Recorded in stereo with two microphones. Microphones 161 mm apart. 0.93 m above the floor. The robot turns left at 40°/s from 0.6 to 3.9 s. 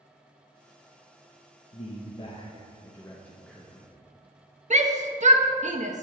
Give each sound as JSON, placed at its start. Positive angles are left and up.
{"t": 1.7, "sound": "a man speaking", "azimuth_deg": 75, "distance_m": 0.7}
{"t": 4.7, "sound": "a shout", "side_deg": -45, "distance_m": 0.6}